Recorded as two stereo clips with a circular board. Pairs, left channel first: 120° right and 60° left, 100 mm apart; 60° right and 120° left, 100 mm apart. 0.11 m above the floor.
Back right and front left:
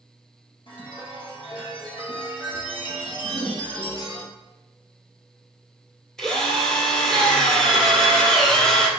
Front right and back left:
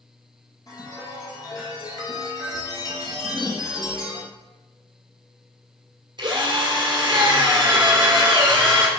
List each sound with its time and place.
0.7 s a chime: 105° right, 2.5 m
3.2 s a whoosh: 120° right, 1.6 m
6.2 s a drill: 155° left, 2.5 m